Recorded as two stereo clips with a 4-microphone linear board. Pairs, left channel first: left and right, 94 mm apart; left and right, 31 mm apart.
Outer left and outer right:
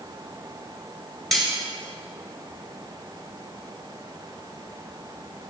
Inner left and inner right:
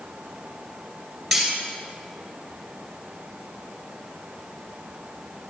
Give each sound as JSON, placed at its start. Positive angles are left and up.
{"t": 1.3, "sound": "cutlery clinking", "side_deg": 0, "distance_m": 3.0}